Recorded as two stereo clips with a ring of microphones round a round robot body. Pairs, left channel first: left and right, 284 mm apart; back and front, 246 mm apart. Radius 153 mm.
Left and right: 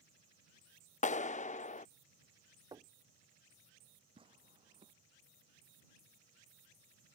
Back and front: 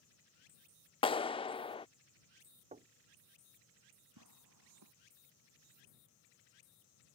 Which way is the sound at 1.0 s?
130° left.